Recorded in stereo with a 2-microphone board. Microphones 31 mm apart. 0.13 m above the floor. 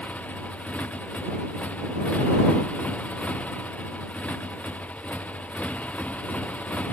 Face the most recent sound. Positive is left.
turn(degrees=55)  # may be behind; listen again after turning